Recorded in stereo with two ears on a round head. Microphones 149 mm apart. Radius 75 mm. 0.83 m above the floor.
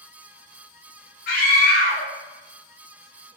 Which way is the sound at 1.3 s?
60° left (ahead or behind).